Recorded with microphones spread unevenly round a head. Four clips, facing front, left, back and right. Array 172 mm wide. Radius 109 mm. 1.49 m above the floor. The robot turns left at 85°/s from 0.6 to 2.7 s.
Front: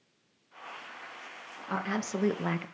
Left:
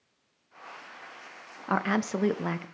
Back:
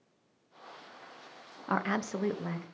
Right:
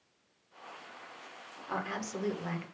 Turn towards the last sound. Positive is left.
turn(degrees=20)